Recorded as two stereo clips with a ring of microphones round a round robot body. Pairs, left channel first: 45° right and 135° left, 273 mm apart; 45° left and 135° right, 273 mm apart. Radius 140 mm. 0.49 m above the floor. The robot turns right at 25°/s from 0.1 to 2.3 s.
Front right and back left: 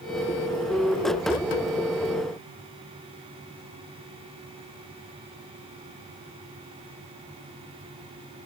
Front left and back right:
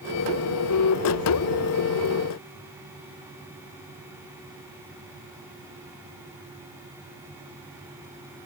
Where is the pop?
I don't hear a pop.